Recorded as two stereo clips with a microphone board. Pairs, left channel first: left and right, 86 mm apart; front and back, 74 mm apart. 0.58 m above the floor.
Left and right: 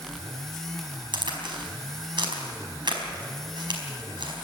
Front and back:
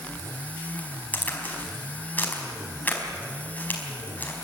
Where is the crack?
65° right, 4.5 m.